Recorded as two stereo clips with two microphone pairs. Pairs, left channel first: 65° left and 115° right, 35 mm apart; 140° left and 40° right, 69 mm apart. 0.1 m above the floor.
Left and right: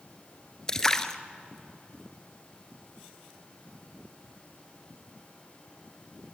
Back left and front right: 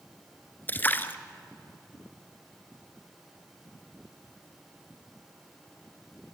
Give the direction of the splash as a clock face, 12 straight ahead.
8 o'clock.